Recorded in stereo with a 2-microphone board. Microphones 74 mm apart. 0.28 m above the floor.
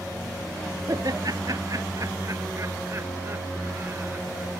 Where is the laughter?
55° right (ahead or behind); by 4.5 s 25° right (ahead or behind).